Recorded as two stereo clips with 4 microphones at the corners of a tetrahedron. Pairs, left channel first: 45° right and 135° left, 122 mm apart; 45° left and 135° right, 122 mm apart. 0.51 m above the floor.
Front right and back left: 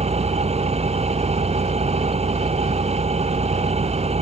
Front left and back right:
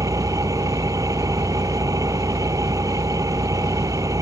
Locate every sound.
0.0 s an engine running: 165° left